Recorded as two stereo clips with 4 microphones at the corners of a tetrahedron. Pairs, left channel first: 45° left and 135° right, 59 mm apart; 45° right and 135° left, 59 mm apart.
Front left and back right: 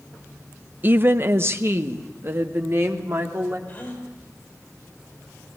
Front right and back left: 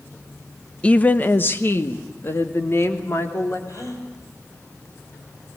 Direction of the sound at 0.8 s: 105° right.